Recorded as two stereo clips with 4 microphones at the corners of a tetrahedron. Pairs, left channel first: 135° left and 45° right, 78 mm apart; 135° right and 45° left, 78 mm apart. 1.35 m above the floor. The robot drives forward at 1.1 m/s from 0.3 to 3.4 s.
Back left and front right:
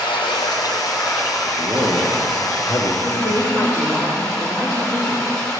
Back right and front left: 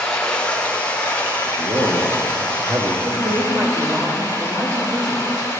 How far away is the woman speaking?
About 2.5 m.